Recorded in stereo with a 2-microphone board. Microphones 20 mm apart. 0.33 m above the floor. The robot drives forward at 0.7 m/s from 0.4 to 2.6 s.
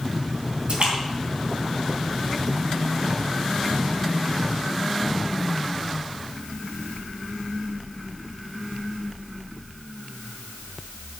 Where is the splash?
60° right (ahead or behind), 3.5 m; by 2.7 s 65° right (ahead or behind), 3.5 m.